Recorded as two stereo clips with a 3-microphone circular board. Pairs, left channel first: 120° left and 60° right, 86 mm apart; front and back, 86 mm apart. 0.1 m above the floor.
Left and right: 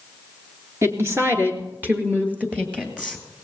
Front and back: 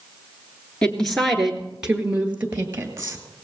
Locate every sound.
0.8 s a woman speaking: 70° right, 1.7 m; by 3.2 s 130° right, 2 m